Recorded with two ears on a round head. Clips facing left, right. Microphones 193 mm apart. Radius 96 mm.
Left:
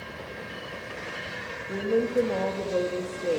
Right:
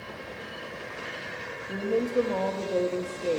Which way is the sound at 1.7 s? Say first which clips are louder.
Left 2 dB; 5° left (ahead or behind).